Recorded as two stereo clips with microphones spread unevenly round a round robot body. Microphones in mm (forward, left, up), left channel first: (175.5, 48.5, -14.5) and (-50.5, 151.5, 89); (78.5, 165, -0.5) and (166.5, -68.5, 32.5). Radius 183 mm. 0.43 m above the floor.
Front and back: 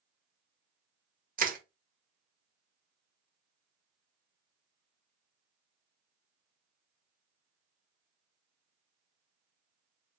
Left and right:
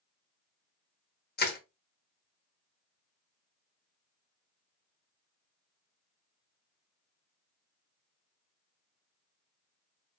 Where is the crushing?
85° left, 1.2 m.